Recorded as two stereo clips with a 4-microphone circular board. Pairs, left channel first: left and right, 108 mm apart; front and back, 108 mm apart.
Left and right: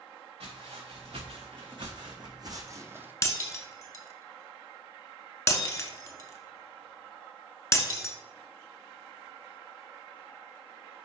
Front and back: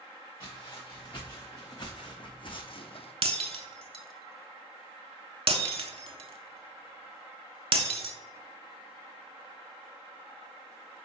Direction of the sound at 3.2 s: 150° left.